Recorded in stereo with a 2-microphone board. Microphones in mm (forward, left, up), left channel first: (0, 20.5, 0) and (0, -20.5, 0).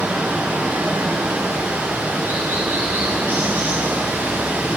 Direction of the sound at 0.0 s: 70° right (ahead or behind).